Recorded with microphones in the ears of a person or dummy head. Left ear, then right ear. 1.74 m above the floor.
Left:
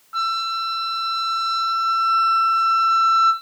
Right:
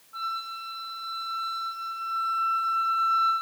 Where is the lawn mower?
No lawn mower in this recording.